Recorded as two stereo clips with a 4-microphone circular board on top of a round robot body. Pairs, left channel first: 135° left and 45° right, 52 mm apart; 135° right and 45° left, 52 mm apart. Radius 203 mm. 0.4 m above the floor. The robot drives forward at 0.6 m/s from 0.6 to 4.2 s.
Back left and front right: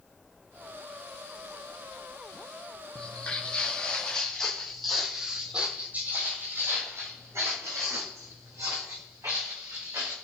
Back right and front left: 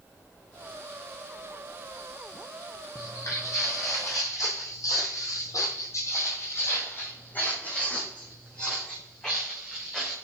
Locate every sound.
3.0 s footsteps: 160° right, 1.3 m; by 10.2 s 50° right, 3 m